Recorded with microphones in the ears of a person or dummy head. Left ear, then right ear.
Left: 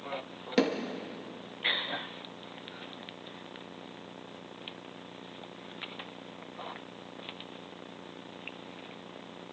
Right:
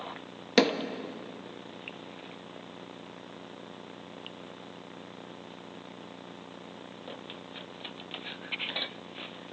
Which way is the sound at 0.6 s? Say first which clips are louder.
Right 4 dB; 25° right (ahead or behind).